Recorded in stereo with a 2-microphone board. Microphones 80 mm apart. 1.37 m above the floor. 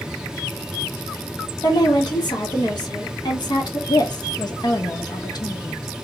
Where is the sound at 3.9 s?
60° left (ahead or behind), 0.6 m.